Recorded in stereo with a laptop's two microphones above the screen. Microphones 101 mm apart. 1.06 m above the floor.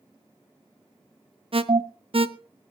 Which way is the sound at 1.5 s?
65° right (ahead or behind).